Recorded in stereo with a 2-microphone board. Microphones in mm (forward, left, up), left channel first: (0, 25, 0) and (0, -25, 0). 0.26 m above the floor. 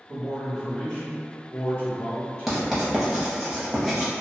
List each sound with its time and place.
0.1 s a man speaking: 25° right (ahead or behind), 1.2 m; by 2.8 s 50° left (ahead or behind), 1.7 m
2.5 s writing: 5° right (ahead or behind), 0.7 m